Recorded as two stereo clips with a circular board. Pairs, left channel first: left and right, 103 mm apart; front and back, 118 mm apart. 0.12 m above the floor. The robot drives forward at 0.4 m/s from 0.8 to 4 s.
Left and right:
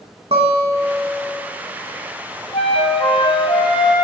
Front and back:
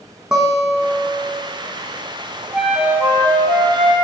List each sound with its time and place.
0.3 s a guitar: 95° right, 1.2 m; by 1.4 s 110° right, 1.2 m
2.5 s a flute: 90° left, 0.6 m; by 4.0 s 135° left, 0.9 m